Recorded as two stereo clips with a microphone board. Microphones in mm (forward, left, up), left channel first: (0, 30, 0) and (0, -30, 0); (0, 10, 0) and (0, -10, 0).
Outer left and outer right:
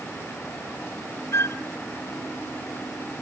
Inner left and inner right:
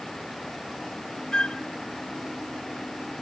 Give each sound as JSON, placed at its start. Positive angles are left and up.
{"t": 1.3, "sound": "a flute", "side_deg": 45, "distance_m": 0.7}